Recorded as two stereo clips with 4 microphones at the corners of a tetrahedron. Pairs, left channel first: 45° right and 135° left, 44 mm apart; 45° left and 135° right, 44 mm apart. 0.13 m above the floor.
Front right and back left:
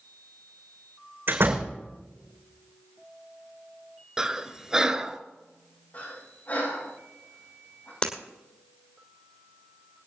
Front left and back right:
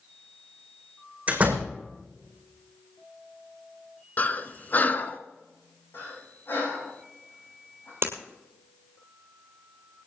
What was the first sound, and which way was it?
A door slam, 165° left.